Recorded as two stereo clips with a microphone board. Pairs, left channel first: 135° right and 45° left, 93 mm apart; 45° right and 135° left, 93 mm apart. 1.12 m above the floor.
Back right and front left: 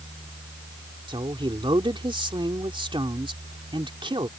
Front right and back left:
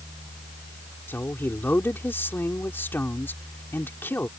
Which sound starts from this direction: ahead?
A woman speaking, at 1.1 s.